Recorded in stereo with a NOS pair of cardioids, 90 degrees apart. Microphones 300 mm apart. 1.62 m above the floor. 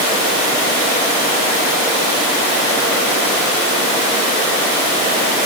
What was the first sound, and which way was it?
Only background noise.